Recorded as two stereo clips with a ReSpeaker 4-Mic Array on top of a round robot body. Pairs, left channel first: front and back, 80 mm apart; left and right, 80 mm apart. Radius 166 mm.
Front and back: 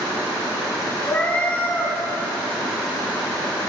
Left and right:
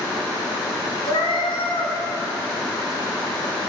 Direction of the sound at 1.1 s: 70° left.